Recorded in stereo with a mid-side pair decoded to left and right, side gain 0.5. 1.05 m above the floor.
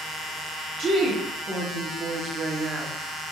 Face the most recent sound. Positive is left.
turn(degrees=-65)